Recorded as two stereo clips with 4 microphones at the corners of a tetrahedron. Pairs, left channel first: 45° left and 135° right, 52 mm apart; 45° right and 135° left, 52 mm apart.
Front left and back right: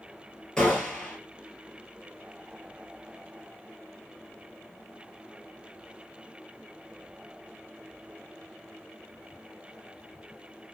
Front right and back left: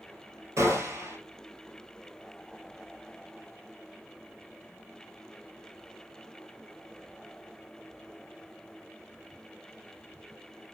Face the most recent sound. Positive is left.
turn(degrees=120)